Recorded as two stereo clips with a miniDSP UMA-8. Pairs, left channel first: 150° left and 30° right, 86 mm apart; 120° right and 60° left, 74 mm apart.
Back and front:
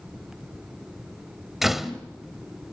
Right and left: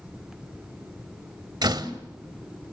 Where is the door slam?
55° left, 1.2 m.